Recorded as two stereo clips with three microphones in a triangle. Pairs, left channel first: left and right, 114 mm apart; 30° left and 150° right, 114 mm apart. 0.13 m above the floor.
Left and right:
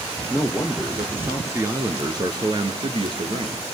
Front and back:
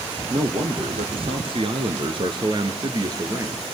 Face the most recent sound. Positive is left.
turn(degrees=-95)